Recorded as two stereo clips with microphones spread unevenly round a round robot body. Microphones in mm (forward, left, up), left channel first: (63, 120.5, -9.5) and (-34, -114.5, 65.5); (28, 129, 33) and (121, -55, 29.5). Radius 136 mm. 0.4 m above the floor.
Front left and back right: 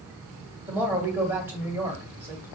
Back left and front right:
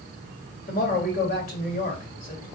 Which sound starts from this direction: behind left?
A woman speaking, at 0.7 s.